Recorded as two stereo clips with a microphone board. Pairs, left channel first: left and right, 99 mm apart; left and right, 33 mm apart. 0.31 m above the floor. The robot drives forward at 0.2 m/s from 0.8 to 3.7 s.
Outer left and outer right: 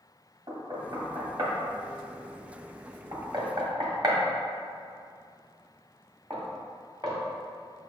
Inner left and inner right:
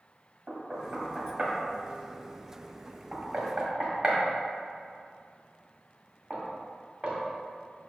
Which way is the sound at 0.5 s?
50° right (ahead or behind).